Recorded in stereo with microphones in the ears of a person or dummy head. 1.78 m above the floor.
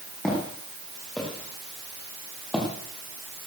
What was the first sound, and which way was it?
Footsteps, 5° left (ahead or behind).